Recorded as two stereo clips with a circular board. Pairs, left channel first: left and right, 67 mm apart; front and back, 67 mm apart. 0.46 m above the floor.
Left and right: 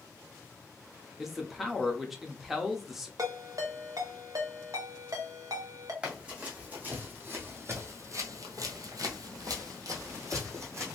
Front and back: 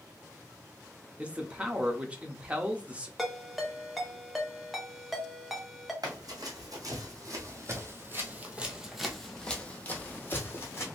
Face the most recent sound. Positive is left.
turn(degrees=-50)